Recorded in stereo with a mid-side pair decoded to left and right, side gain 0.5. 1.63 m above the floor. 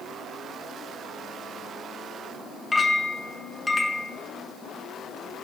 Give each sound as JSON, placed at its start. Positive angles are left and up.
{"t": 2.7, "sound": "a clink", "azimuth_deg": 20, "distance_m": 2.0}